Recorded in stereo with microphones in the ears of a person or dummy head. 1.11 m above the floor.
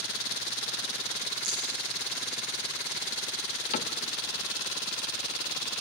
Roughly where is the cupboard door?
Left.